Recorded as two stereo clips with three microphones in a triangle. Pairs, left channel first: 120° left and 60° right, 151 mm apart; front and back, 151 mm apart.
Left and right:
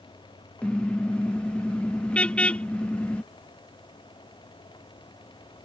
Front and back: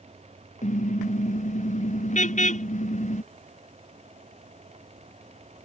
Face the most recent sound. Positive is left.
turn(degrees=40)